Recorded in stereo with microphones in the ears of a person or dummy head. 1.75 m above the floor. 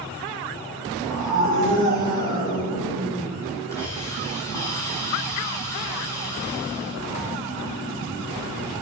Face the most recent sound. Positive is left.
turn(degrees=15)  # may be behind; listen again after turning